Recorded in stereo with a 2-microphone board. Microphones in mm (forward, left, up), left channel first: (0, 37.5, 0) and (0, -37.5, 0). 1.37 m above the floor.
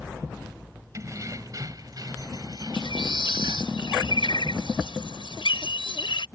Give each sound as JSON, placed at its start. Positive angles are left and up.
{"t": 0.9, "sound": "keys jangling", "side_deg": -40}
{"t": 2.7, "sound": "a bird", "side_deg": 90}